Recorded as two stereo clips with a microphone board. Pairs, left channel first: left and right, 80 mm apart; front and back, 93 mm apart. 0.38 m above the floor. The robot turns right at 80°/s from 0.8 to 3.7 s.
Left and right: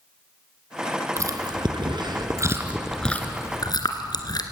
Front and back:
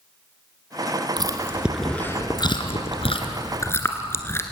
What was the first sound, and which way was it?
Chewing, 140° right.